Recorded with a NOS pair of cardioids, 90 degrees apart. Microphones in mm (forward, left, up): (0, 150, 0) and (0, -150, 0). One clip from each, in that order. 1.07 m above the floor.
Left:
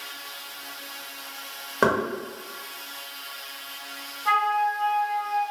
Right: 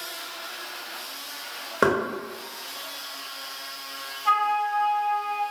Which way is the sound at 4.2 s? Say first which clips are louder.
Even; 15° right.